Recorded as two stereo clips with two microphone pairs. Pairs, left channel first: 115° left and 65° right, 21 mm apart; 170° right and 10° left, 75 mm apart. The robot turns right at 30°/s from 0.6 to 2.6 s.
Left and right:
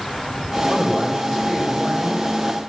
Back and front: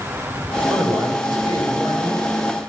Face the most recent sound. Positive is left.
turn(degrees=30)